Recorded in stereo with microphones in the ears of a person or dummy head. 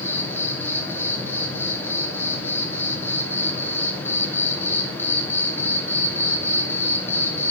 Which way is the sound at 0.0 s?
15° left (ahead or behind).